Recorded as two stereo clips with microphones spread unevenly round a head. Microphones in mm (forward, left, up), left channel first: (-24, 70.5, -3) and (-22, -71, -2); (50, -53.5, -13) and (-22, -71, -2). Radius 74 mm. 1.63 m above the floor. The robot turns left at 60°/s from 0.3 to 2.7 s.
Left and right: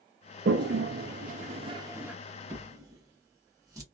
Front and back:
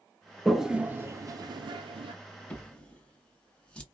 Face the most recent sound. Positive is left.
turn(degrees=-55)